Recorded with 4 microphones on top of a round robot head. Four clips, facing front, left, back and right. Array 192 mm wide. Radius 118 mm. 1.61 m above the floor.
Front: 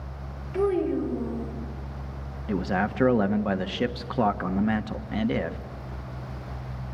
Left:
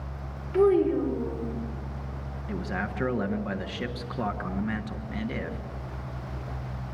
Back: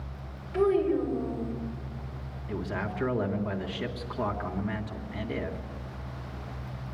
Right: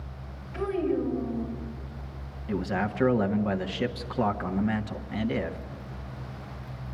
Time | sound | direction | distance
0.5 | a child speaking | 80° left | 4.5 m
2.5 | a man speaking | 10° right | 1.2 m